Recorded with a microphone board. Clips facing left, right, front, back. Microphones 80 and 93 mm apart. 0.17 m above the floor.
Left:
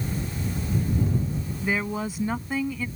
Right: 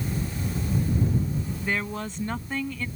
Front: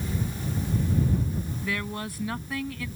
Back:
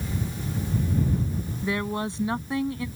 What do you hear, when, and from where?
1.6 s a woman speaking: 160° left